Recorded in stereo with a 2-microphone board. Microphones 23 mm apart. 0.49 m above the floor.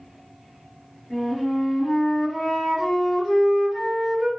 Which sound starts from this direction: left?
A flute, at 1.1 s.